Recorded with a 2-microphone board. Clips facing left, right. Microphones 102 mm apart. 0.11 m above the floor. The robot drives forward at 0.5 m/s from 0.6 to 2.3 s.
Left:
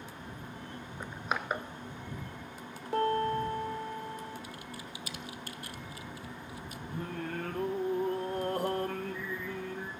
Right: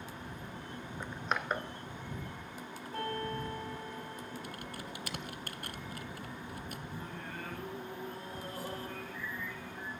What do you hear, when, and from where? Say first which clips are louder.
1.0 s crushing: left 1 dB; 5° left (ahead or behind), 1.0 m
2.9 s a piano: left 9 dB; 75° left (ahead or behind), 5.5 m
4.4 s typing on a keyboard: right 1 dB; 55° right (ahead or behind), 0.6 m
6.9 s singing: left 6 dB; 55° left (ahead or behind), 1.2 m